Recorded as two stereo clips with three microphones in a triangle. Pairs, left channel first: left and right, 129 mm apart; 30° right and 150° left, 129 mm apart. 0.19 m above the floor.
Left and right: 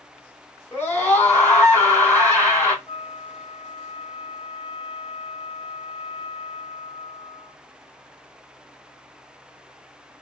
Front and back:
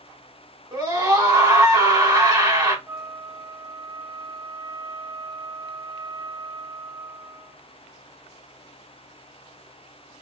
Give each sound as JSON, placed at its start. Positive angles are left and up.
{"t": 0.7, "sound": "a scream", "azimuth_deg": 145, "distance_m": 1.5}
{"t": 2.9, "sound": "a flute", "azimuth_deg": 90, "distance_m": 0.8}